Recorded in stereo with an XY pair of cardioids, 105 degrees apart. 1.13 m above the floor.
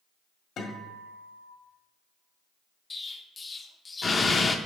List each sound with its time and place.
0.6 s a guitar: 65° left, 1.7 m
2.9 s an explosion: 30° left, 0.7 m